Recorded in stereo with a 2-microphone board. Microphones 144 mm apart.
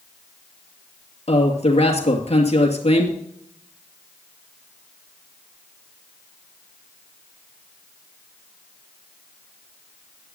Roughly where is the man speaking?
Left.